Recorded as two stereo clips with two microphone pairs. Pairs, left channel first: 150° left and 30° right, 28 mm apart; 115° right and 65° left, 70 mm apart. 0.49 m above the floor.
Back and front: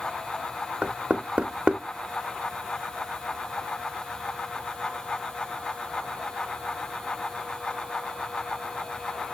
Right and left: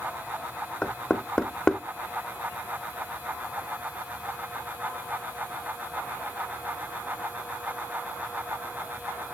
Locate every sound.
0.8 s knocking: 50° right, 0.5 m